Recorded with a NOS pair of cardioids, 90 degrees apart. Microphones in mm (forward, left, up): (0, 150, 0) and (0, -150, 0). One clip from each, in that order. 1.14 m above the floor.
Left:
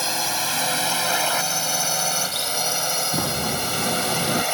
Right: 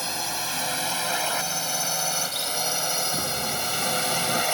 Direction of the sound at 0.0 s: 40° left.